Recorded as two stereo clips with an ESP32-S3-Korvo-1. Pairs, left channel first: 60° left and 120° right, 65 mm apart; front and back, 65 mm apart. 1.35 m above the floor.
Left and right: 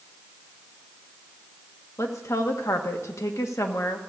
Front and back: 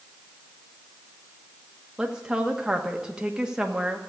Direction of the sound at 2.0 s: 100° left.